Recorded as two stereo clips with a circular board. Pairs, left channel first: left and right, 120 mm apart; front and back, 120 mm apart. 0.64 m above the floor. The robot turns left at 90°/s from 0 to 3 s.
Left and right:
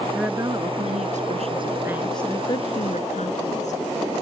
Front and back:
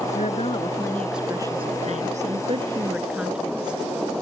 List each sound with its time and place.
0.1 s a woman speaking: 5° right; by 3.8 s 100° left